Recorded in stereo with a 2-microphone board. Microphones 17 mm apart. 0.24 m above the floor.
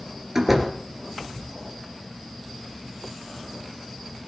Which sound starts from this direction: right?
A door slam, at 0.3 s.